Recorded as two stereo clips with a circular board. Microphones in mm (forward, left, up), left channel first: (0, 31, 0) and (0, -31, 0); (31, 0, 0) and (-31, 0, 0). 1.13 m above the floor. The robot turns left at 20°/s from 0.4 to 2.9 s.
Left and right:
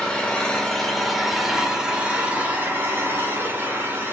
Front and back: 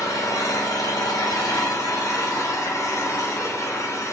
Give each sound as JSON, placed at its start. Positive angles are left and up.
{"t": 0.0, "sound": "an engine running", "azimuth_deg": 15, "distance_m": 1.7}